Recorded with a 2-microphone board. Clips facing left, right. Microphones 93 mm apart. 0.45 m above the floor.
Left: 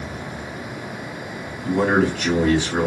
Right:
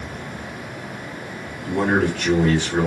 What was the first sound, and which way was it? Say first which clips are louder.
A man speaking: left 1 dB; 10° left (ahead or behind).